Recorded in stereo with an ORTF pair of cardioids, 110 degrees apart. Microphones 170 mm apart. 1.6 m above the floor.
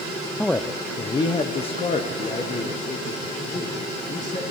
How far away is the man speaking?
About 0.6 m.